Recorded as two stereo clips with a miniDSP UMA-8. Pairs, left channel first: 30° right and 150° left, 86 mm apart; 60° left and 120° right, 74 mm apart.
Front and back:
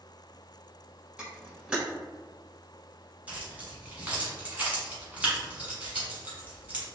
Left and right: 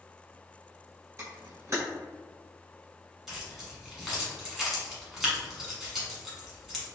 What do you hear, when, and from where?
1.2 s a camera shutter: 140° right, 1.9 m
3.3 s keys jangling: 165° left, 1.1 m